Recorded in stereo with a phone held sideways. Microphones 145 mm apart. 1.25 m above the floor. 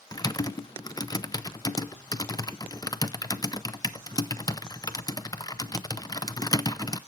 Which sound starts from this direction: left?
Typing on a keyboard, at 0.1 s.